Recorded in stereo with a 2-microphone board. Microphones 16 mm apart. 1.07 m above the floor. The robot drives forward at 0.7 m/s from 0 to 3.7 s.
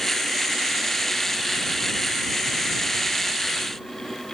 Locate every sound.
Only background noise.